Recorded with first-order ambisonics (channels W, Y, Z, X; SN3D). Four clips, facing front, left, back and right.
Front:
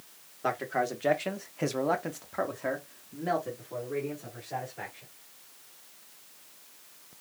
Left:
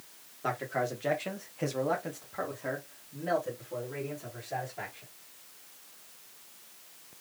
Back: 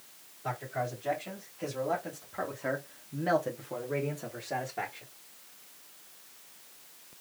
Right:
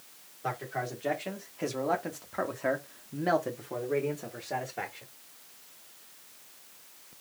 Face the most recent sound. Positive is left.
turn(degrees=-135)